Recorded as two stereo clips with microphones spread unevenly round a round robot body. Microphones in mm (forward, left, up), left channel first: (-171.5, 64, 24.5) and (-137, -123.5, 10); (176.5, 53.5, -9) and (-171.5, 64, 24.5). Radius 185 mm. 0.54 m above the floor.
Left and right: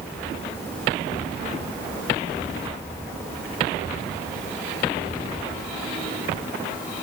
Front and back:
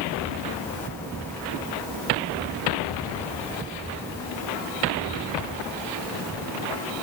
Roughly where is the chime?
I don't hear a chime.